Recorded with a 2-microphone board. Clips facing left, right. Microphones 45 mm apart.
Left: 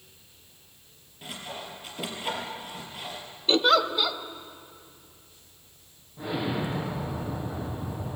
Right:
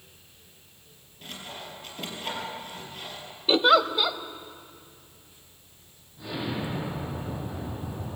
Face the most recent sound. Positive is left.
turn(degrees=30)  # may be behind; listen again after turning